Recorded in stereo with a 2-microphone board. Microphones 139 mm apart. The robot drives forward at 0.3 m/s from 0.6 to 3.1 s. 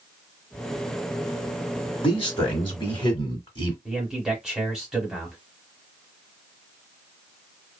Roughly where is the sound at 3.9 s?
Centre.